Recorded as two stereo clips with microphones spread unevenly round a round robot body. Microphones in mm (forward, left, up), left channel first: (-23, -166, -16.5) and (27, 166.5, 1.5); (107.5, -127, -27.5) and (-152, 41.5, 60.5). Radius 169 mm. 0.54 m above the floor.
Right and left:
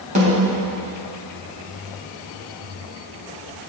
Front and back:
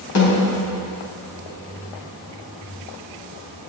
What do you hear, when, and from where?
0.1 s a snare drum: 10° left, 4 m